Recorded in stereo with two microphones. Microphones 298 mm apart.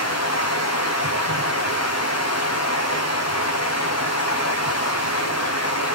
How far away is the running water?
About 2 m.